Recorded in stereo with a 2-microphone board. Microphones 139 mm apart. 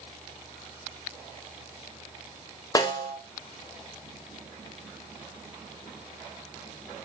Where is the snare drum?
25° left (ahead or behind), 0.6 m.